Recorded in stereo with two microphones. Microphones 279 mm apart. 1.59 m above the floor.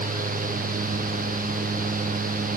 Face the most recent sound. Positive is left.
No sound to turn to.